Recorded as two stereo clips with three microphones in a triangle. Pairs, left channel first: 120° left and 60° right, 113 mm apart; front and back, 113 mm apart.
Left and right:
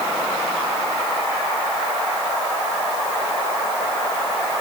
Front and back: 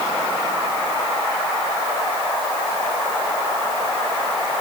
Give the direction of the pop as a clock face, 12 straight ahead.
I don't hear a pop.